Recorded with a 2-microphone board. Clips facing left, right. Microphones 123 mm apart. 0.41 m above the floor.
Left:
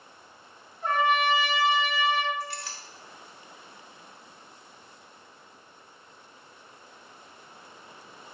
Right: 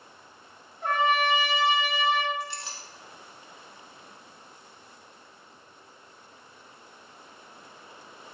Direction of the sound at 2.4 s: 25° right (ahead or behind).